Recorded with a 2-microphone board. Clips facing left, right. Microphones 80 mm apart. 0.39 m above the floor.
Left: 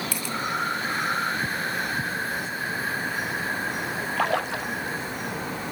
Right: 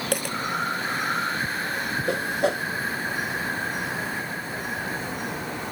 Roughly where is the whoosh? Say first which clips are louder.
Right 6 dB; right.